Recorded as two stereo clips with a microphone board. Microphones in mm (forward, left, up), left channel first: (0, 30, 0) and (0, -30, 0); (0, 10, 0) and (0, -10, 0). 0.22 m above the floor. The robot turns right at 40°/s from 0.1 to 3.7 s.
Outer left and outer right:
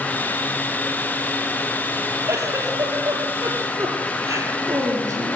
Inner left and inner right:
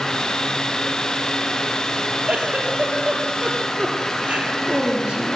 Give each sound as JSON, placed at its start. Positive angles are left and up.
{"t": 2.3, "sound": "a giggle", "azimuth_deg": -125, "distance_m": 6.5}